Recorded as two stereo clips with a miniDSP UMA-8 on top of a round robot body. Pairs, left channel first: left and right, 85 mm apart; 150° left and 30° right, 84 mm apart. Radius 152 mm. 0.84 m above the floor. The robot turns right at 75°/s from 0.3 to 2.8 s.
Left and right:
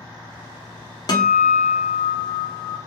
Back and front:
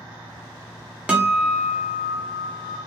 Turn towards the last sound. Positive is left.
turn(degrees=175)